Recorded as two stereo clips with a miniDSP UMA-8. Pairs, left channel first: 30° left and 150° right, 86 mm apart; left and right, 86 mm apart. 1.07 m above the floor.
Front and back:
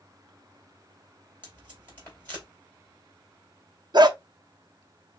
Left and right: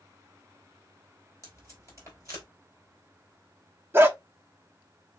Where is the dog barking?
150° right, 0.8 m.